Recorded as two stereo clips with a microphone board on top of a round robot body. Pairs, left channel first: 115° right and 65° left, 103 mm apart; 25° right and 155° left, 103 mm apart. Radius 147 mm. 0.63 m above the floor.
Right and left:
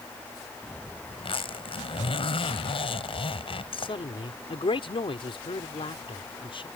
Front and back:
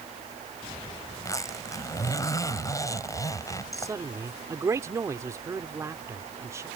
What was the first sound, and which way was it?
A zipper, 80° right.